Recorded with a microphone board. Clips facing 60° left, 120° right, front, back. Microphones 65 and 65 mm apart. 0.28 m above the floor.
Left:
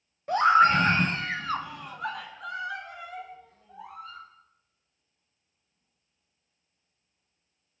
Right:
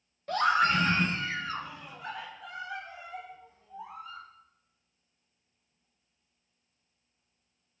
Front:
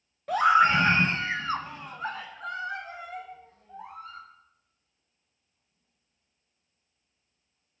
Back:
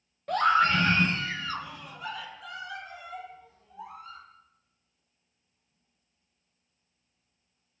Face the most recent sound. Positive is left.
turn(degrees=45)